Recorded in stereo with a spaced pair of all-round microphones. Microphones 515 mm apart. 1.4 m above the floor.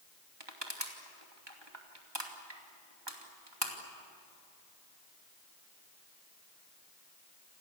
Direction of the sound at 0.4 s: 50° right (ahead or behind).